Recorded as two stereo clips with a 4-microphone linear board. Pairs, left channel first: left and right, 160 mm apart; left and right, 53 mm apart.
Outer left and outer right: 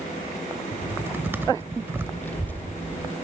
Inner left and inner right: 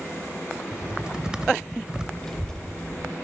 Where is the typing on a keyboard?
15° right (ahead or behind), 0.9 m.